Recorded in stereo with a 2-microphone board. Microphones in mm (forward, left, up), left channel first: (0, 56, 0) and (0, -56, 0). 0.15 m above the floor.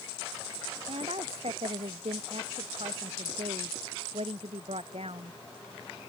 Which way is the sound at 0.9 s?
70° right (ahead or behind).